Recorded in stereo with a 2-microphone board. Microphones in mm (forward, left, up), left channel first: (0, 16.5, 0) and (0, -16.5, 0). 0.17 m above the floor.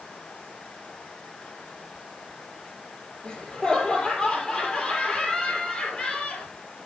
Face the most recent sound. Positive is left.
turn(degrees=20)  # may be behind; listen again after turning